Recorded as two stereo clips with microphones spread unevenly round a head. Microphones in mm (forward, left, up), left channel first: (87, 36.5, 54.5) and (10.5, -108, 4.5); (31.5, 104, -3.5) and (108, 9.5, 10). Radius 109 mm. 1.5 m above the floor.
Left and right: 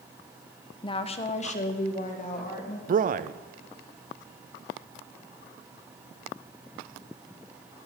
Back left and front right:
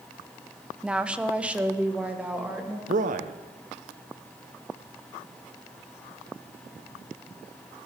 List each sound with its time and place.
0.8 s a woman speaking: 25° left, 0.5 m
2.9 s a man speaking: 75° right, 0.5 m